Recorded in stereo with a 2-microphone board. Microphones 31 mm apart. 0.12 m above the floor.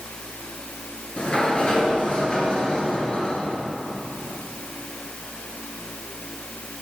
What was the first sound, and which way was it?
A sliding door, 35° left (ahead or behind).